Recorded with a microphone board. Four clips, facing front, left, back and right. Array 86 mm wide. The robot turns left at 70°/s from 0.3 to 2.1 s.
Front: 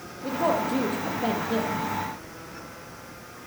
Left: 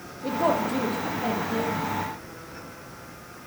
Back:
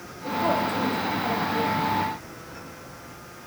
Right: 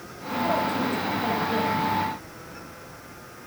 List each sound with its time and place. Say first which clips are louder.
0.2 s a woman speaking: left 1 dB, even; 65° left, 7.5 m; by 1.8 s 40° right, 7.5 m